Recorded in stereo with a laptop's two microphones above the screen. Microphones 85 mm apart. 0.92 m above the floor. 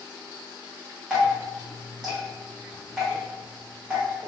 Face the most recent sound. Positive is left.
turn(degrees=-5)  # may be behind; listen again after turning